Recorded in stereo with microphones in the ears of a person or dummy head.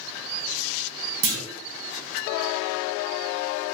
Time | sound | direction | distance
1.2 | a clunk | 50° right (ahead or behind) | 0.6 m